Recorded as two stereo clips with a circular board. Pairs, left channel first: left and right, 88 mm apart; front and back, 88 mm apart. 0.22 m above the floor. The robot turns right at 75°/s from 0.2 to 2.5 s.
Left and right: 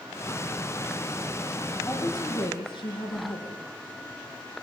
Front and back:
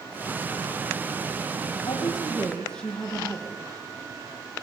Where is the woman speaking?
30° left, 7 m; by 3.6 s 80° left, 7 m.